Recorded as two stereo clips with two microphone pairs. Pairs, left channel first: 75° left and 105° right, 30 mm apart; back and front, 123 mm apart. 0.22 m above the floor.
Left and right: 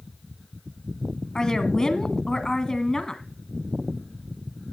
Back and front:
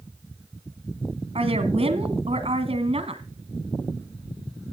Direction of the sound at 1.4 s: 15° left.